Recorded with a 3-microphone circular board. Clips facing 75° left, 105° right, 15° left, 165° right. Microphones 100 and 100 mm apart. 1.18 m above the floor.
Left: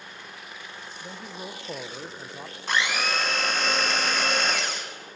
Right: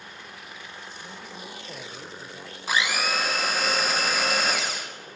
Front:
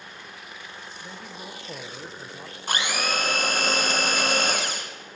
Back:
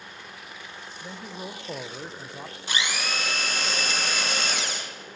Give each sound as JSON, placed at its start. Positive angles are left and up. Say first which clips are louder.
{"t": 1.0, "sound": "a man speaking", "louder": "left 5 dB, back 4 dB", "azimuth_deg": 130, "distance_m": 0.7}
{"t": 2.7, "sound": "a blender", "louder": "even, front 3 dB", "azimuth_deg": -20, "distance_m": 1.2}